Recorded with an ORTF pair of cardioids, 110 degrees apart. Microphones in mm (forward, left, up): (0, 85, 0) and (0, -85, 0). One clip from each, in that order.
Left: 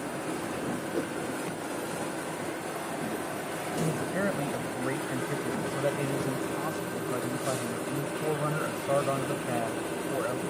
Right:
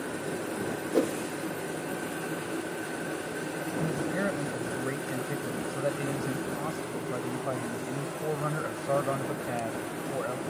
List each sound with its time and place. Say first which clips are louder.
0.9 s a whoosh: right 9 dB; 40° right
3.8 s a man speaking: even; 5° left